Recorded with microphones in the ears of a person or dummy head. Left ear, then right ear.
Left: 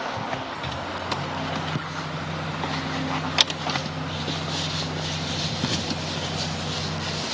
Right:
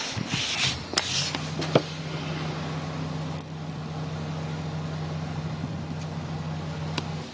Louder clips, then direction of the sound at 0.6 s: Right 2 dB; 85° right.